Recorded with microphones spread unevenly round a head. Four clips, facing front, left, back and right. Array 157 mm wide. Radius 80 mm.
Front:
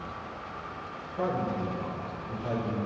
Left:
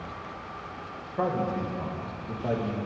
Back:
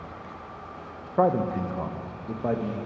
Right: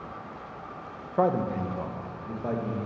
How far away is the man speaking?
About 1.0 m.